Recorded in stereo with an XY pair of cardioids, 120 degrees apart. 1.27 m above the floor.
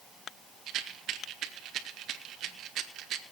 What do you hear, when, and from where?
0.7 s a rattle: 65° right, 1.8 m